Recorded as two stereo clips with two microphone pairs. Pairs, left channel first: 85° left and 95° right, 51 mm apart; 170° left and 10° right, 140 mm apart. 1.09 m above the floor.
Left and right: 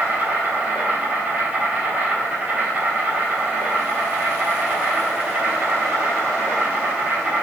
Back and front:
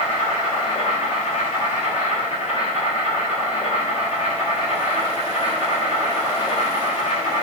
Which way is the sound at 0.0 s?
155° right.